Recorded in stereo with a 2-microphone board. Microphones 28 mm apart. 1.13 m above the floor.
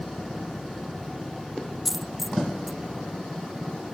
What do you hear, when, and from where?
1.9 s a dropped coin: 10° right (ahead or behind), 0.6 m